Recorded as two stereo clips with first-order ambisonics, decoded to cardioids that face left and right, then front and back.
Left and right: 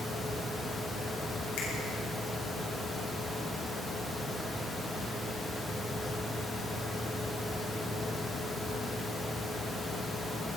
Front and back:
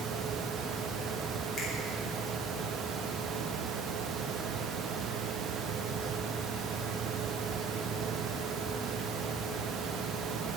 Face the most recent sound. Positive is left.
turn(degrees=65)